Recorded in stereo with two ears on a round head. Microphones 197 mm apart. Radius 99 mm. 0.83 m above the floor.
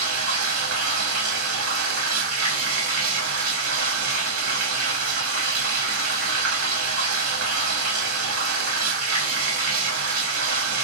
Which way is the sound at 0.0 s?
75° right (ahead or behind).